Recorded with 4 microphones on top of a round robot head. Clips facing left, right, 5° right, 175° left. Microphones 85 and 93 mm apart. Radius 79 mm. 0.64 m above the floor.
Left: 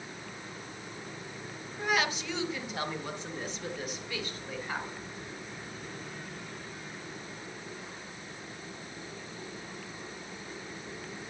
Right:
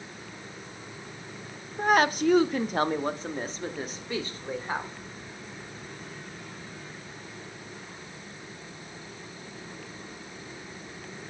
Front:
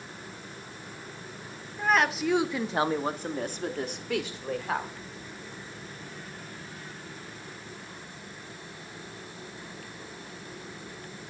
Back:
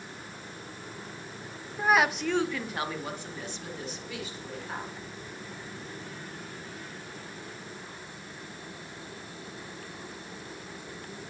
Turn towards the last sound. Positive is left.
turn(degrees=-30)